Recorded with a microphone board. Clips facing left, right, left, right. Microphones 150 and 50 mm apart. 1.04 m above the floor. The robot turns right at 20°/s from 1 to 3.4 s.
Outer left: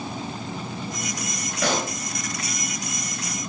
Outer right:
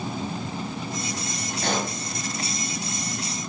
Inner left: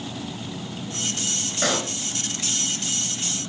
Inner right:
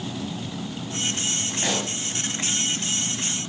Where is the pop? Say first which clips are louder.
Outer left 2 dB, inner left 3 dB; 80° left, 8 m; by 1.9 s 75° left (ahead or behind), 8 m.